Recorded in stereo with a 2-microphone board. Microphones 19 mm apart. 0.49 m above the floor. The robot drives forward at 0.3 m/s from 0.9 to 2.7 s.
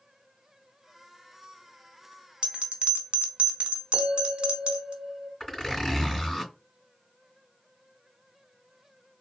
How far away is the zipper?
About 3 m.